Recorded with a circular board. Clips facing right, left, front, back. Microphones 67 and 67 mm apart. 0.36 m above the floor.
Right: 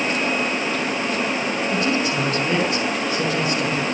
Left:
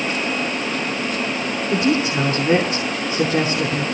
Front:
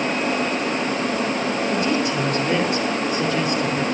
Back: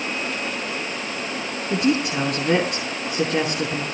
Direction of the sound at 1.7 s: 155° left.